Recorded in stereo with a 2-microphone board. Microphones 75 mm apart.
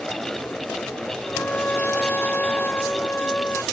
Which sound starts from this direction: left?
A trumpet, at 1.2 s.